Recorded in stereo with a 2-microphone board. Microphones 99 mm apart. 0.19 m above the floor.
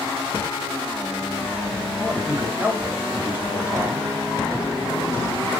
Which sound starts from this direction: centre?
A man speaking, at 2.0 s.